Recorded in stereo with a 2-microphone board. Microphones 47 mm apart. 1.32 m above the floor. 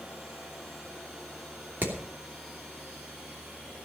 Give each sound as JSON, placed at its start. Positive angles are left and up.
{"t": 1.8, "sound": "hammering", "side_deg": -50, "distance_m": 3.0}